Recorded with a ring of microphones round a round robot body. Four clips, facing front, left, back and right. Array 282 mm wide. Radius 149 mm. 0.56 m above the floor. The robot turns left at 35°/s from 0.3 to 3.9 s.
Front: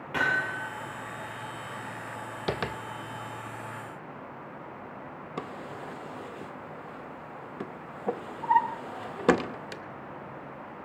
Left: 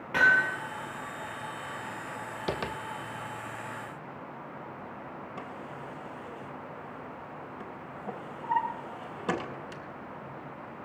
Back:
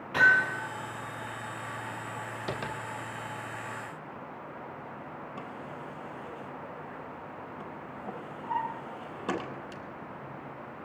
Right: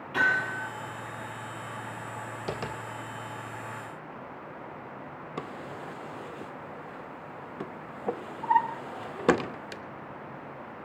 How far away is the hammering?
About 8.5 m.